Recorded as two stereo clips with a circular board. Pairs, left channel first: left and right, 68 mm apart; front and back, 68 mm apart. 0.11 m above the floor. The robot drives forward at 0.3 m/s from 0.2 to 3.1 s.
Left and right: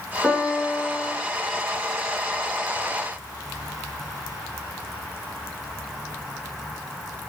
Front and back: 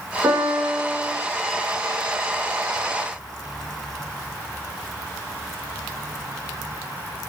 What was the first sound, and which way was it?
A piano, 155° left.